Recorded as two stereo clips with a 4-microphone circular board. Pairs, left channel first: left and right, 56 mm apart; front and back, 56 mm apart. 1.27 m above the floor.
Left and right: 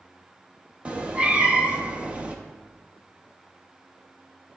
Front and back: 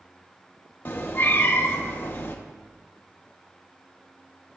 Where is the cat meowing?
25° right, 0.8 m.